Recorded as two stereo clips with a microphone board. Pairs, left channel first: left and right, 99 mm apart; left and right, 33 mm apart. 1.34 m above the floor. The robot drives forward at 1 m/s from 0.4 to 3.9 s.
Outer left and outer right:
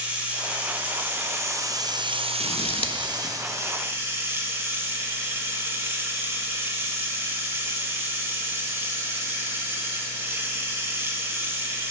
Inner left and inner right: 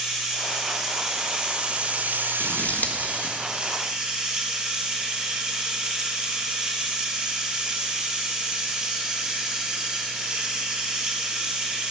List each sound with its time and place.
0.0 s running water: 15° right (ahead or behind), 2 m; by 11.9 s 25° right (ahead or behind), 1.5 m
2.4 s scissors: 60° left (ahead or behind), 1.3 m; by 3.3 s 70° left (ahead or behind), 1.2 m